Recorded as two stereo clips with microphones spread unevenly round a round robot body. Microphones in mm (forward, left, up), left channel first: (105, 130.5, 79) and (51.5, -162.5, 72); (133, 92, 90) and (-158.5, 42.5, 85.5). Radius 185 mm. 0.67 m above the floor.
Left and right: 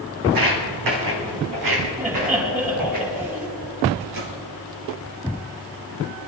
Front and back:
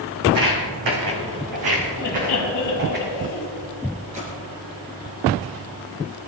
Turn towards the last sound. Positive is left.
turn(degrees=-100)